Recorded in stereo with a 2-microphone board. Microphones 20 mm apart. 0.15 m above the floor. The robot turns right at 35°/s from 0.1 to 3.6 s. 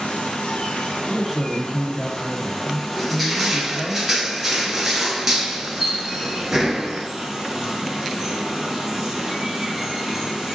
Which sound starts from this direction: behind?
A man speaking, at 1.1 s.